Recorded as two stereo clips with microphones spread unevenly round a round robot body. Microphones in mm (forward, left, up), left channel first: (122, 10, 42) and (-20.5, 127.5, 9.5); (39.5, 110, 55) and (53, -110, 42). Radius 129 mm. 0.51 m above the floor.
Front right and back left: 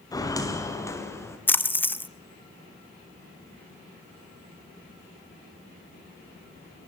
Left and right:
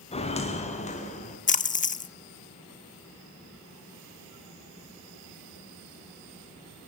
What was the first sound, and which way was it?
Footsteps, 30° left.